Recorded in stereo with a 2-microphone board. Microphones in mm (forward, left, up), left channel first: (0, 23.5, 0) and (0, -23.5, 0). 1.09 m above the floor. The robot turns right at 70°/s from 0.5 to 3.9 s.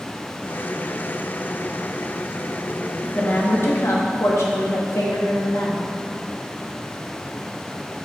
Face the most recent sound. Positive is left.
turn(degrees=85)